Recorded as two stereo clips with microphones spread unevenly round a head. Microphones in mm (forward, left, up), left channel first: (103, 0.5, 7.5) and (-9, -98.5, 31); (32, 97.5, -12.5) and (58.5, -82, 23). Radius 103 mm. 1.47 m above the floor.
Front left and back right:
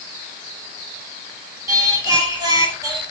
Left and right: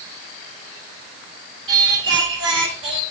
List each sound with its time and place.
1.7 s singing: 75° right, 4.5 m